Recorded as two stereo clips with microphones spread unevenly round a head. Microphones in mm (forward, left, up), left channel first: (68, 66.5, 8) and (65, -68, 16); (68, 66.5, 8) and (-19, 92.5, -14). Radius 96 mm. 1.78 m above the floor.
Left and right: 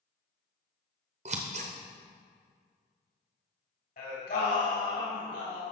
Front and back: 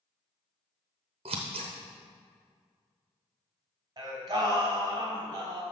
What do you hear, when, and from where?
1.2 s scissors: 140° right, 0.7 m
4.0 s singing: 120° left, 3 m